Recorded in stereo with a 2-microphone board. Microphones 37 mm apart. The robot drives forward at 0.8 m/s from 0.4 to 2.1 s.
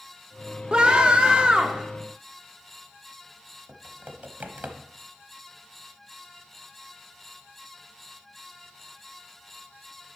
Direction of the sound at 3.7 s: 50° right (ahead or behind).